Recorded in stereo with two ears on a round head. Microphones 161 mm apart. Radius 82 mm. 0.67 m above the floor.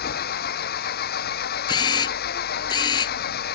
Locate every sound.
0.0 s an engine running: 60° left (ahead or behind)
1.7 s a camera shutter: 25° left (ahead or behind)